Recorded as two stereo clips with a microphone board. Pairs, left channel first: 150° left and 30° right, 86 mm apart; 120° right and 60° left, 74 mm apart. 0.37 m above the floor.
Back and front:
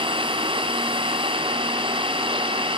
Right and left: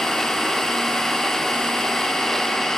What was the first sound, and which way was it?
An engine running, 35° right.